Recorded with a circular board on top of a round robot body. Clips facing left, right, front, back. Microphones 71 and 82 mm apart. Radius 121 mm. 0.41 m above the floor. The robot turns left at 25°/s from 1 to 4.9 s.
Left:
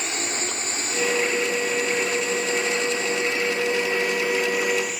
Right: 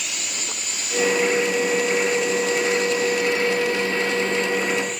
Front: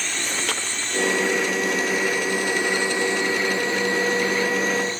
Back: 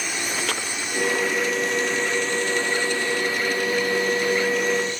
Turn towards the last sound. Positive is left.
turn(degrees=10)